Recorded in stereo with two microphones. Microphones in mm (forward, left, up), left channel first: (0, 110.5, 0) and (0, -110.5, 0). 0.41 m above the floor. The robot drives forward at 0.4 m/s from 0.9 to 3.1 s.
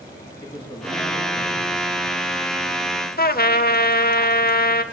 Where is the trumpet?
45° left (ahead or behind), 0.8 m.